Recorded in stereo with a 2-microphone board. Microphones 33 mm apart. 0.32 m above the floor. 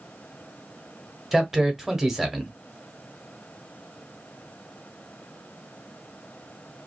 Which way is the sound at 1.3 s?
15° right (ahead or behind).